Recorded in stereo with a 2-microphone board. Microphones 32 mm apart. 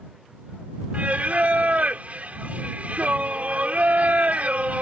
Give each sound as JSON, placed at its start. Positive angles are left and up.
{"t": 0.9, "sound": "singing", "side_deg": -50}